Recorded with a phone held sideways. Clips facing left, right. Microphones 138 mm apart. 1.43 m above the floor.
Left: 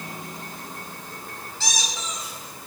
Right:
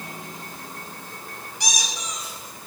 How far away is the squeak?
About 4 m.